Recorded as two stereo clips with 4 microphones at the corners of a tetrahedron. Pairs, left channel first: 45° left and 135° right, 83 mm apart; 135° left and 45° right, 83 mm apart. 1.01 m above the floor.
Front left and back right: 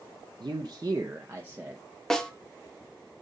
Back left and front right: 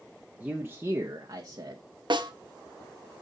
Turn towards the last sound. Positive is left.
turn(degrees=-40)